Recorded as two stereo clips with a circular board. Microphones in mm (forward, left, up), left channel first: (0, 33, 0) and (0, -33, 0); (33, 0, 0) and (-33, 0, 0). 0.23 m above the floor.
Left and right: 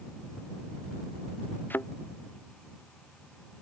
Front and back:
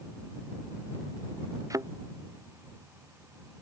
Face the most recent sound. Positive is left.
turn(degrees=150)